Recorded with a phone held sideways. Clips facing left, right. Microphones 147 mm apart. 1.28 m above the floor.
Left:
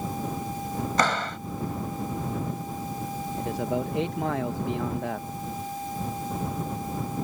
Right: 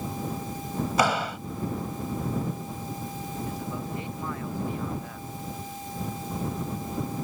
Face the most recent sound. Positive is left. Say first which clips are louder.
# left 7 dB
turn(degrees=80)